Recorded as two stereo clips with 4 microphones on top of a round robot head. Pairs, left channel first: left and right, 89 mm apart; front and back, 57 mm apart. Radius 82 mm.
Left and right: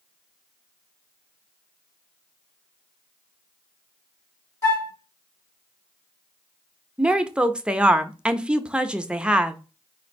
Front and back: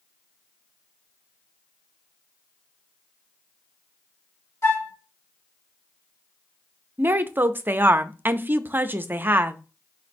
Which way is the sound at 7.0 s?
160° right.